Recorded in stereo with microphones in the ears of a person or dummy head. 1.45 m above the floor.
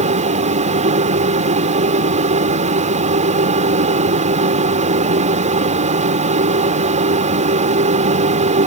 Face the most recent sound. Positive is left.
turn(degrees=-40)  # may be behind; listen again after turning